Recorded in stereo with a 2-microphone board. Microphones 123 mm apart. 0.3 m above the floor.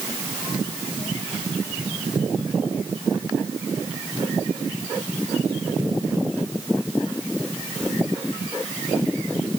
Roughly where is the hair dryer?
I don't hear a hair dryer.